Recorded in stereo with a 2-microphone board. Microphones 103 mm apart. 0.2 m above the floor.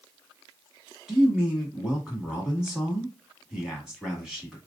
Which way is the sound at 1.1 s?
5° right (ahead or behind).